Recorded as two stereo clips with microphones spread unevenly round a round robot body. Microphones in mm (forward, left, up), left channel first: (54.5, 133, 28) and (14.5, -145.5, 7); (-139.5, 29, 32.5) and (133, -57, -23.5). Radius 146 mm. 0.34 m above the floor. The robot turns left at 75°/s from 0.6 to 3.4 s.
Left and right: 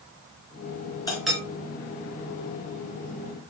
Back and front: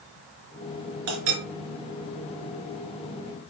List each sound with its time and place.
1.1 s a clink: 5° left, 3.5 m; by 1.4 s 20° right, 3.5 m